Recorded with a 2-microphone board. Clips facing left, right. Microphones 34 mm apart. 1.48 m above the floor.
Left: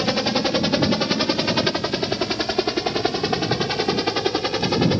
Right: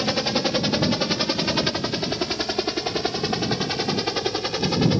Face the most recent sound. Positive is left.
turn(degrees=10)  # may be behind; listen again after turning